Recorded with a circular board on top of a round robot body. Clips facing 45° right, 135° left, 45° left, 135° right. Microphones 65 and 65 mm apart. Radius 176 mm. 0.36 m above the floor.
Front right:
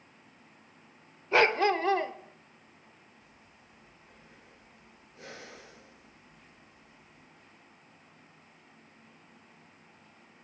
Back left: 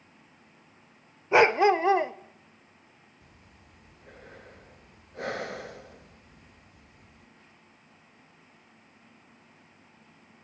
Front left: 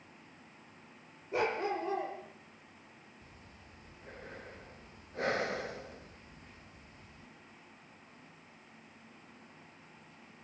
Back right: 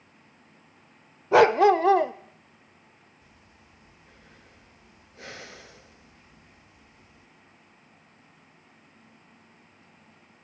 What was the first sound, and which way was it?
A dog barking, 150° right.